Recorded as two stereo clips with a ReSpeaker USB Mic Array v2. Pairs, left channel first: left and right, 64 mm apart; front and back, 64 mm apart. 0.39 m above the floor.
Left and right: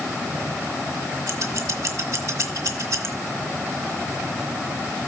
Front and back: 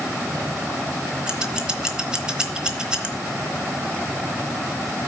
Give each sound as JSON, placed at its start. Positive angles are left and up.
{"t": 1.3, "sound": "scissors", "azimuth_deg": -105, "distance_m": 1.0}